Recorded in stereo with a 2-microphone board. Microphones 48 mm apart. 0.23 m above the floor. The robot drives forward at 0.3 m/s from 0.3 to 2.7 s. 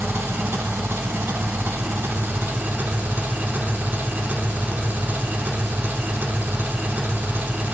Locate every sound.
0.0 s an engine running: 55° right (ahead or behind), 0.8 m; by 7.7 s 45° right (ahead or behind), 0.9 m